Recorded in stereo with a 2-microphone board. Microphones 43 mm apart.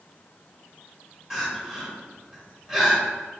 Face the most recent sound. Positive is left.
turn(degrees=-15)  # may be behind; listen again after turning